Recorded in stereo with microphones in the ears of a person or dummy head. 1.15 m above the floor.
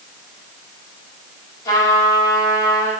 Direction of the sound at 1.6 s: 20° left (ahead or behind).